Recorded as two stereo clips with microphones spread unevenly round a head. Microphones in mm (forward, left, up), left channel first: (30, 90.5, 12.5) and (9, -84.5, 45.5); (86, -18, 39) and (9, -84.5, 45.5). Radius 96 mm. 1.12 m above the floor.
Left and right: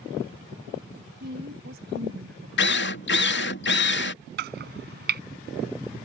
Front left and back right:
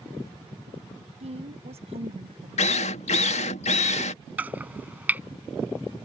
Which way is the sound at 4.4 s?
65° right.